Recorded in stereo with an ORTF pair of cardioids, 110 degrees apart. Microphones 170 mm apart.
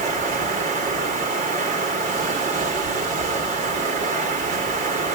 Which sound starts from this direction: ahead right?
Running water, at 0.0 s.